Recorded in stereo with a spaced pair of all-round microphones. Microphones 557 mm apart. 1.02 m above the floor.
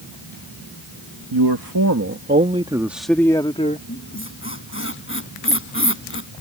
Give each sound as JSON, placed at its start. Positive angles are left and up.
{"t": 1.3, "sound": "a man speaking", "side_deg": -50}
{"t": 3.9, "sound": "a squeak", "side_deg": 20}